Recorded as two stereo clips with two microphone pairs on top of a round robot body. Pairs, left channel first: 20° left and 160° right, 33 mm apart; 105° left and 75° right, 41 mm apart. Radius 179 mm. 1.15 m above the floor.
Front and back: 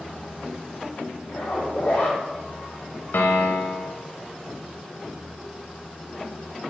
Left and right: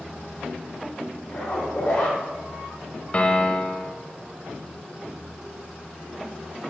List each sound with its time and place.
1.3 s a zipper: 65° left, 1.0 m
3.1 s a piano: 50° left, 1.0 m